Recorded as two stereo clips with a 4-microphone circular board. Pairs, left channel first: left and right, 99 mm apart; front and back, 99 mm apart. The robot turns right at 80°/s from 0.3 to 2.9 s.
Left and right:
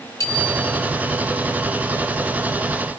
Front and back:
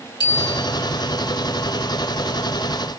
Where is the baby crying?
I don't hear a baby crying.